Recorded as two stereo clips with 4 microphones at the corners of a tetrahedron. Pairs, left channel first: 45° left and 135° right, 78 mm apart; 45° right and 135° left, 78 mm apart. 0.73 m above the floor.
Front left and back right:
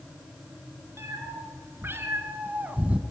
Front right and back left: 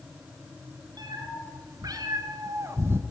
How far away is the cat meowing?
About 2 m.